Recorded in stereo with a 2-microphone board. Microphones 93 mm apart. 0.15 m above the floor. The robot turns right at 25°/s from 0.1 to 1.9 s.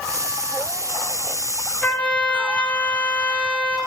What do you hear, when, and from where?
1.8 s a trumpet: 15° left (ahead or behind), 3 m